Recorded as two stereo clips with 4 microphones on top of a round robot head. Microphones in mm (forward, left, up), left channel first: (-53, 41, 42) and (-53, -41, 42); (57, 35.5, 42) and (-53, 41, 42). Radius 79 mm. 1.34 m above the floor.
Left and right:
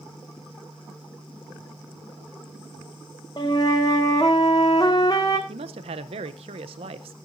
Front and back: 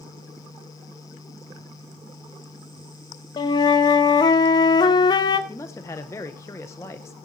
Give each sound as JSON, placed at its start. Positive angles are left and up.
{"t": 3.4, "sound": "a flute", "azimuth_deg": 35, "distance_m": 0.7}
{"t": 5.5, "sound": "a man speaking", "azimuth_deg": -75, "distance_m": 0.6}